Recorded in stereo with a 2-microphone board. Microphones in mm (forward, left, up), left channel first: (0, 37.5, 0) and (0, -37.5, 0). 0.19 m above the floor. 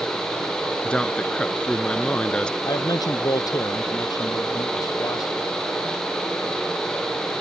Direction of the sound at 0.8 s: 15° left (ahead or behind).